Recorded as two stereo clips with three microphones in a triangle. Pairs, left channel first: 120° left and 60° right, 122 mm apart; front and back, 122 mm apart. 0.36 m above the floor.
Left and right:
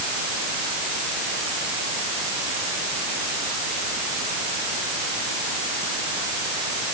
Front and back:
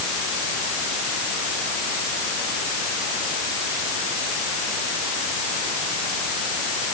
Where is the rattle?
No rattle in this recording.